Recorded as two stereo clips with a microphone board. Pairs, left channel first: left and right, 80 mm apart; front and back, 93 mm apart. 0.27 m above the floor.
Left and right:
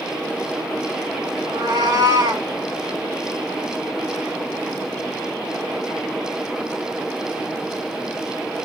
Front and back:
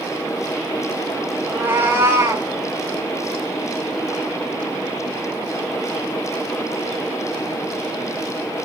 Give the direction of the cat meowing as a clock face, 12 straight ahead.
4 o'clock.